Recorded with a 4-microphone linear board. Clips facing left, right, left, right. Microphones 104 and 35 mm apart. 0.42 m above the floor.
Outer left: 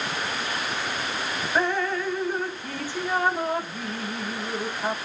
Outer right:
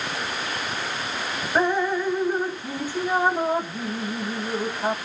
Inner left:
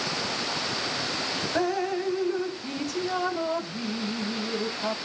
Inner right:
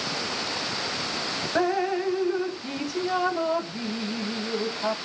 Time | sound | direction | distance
1.6 | dripping | 15° right (ahead or behind) | ?